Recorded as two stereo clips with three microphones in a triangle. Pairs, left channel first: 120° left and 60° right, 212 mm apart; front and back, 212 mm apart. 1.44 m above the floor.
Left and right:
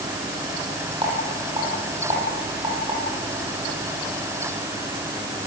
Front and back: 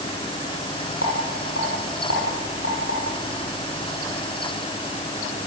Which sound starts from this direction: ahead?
A rattle, at 1.0 s.